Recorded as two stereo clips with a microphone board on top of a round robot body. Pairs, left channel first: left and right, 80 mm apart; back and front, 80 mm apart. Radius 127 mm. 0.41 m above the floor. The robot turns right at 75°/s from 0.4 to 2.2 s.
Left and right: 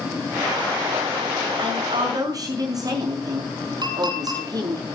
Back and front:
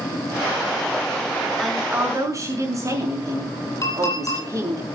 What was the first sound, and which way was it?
A woman speaking, 95° right.